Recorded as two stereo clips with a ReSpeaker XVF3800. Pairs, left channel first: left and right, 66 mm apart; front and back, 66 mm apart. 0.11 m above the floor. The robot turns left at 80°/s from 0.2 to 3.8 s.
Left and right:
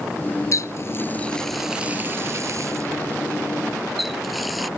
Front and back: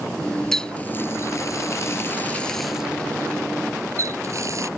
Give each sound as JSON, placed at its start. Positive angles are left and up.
{"t": 0.5, "sound": "a running tap", "azimuth_deg": 85}